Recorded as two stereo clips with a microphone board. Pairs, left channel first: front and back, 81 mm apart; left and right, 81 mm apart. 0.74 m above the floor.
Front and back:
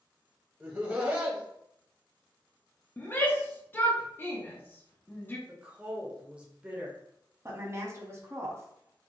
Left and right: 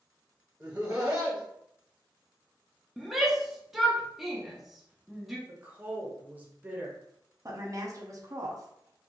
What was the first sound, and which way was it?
Laughter, 140° right.